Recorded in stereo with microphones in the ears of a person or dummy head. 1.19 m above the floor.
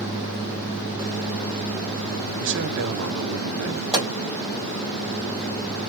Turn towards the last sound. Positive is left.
turn(degrees=-25)  # may be behind; listen again after turning